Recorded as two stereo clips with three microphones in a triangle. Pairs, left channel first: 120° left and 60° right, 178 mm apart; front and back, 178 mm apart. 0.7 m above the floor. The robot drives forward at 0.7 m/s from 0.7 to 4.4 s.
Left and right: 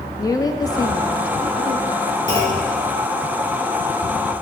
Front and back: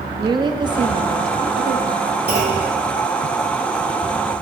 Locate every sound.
0.2 s a woman speaking: 160° left, 0.6 m; by 2.2 s 175° left, 1.4 m
2.3 s a clunk: straight behind, 3 m